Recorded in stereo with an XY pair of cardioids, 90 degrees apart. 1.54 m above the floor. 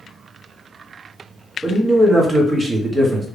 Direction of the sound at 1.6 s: 25° right.